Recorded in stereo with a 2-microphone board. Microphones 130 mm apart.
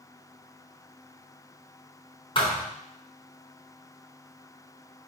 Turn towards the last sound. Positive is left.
turn(degrees=40)  # may be behind; listen again after turning